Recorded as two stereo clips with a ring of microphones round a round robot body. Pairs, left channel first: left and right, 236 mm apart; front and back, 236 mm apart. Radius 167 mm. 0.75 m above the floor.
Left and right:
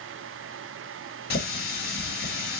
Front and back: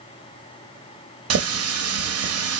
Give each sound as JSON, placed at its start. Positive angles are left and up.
{"t": 1.3, "sound": "a running tap", "azimuth_deg": 155, "distance_m": 0.7}